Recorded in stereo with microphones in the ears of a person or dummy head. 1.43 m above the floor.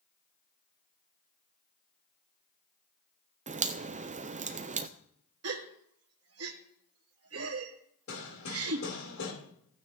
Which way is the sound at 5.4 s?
75° right (ahead or behind).